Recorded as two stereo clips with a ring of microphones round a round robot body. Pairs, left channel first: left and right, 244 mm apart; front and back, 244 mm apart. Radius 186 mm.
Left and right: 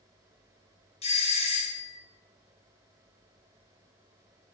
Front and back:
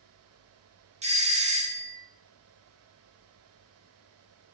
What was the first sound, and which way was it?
A doorbell, 140° left.